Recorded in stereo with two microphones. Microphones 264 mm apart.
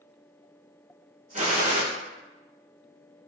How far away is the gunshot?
About 0.7 m.